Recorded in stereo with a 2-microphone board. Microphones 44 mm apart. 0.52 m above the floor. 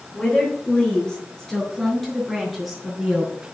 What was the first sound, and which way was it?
A woman speaking, 20° left (ahead or behind).